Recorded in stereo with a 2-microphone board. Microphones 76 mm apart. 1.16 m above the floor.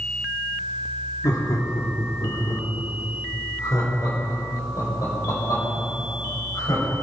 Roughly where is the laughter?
Left.